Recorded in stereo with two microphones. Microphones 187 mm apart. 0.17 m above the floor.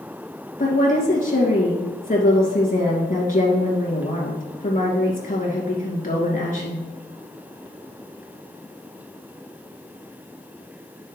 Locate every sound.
0.6 s a woman speaking: 45° left (ahead or behind), 2.5 m